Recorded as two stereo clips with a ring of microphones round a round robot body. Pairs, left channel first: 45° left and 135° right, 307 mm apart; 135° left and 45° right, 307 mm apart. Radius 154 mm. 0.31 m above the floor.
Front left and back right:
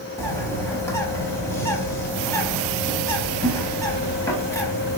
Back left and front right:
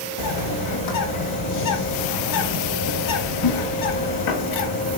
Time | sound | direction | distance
0.2 | a bird | 125° left | 0.7 m